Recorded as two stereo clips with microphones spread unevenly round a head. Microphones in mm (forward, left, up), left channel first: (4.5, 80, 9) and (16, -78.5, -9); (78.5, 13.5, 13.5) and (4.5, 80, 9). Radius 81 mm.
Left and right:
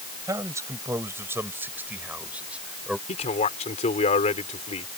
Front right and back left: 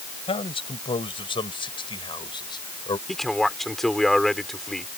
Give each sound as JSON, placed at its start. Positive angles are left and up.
{"t": 0.3, "sound": "a man speaking", "azimuth_deg": -15}
{"t": 3.1, "sound": "a man speaking", "azimuth_deg": 45}